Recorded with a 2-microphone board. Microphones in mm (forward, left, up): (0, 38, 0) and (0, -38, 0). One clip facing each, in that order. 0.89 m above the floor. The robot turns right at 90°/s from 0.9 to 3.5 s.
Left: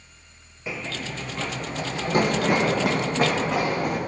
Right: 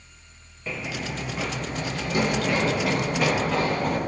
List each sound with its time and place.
0.7 s running footsteps: 10° left (ahead or behind), 1.0 m; by 4.0 s 15° left (ahead or behind), 4.5 m